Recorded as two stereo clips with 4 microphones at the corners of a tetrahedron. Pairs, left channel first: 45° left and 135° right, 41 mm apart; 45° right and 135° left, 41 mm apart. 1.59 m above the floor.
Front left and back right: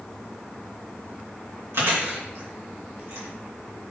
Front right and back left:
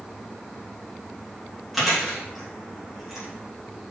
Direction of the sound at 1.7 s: 135° right.